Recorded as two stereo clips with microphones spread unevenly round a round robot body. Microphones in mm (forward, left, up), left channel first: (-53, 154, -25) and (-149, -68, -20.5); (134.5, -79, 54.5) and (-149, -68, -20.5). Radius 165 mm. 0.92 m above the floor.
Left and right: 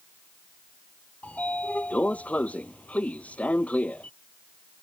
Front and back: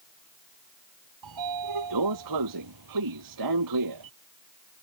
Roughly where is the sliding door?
Behind left.